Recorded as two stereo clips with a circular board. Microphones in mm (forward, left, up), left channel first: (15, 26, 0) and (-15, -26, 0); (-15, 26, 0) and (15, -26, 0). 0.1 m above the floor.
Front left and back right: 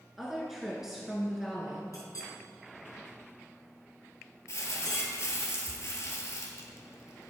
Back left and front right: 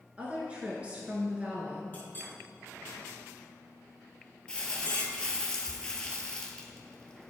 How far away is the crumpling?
About 1.0 m.